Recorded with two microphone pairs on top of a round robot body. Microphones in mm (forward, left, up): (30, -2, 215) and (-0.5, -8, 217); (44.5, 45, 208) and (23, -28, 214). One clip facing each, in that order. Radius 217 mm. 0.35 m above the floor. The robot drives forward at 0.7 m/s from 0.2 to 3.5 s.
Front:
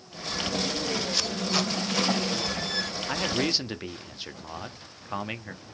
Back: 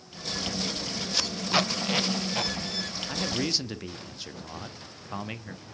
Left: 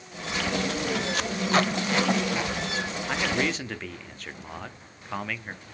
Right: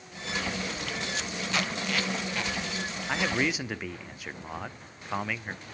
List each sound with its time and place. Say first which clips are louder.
1.1 s tape being pulled: back 5 dB, left 8 dB; 100° left, 0.8 m; by 2.5 s 145° left, 1.4 m
3.1 s a man speaking: front 3 dB, left 1 dB; 15° right, 1.4 m; by 5.7 s 20° right, 1.3 m